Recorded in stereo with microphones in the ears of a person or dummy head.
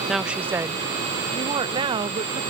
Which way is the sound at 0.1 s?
Centre (ahead or behind).